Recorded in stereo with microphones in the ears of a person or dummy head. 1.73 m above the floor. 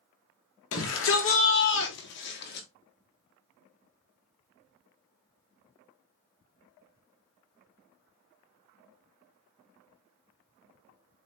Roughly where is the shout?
Left.